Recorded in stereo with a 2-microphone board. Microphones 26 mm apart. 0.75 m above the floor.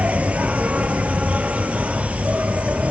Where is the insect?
70° right (ahead or behind), 1.7 m.